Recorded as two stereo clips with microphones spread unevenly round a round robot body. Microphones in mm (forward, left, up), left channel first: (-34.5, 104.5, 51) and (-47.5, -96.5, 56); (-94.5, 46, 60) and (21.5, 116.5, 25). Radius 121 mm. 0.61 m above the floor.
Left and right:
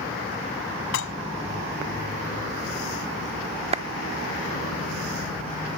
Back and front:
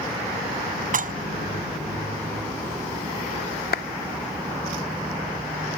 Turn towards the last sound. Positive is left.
turn(degrees=-155)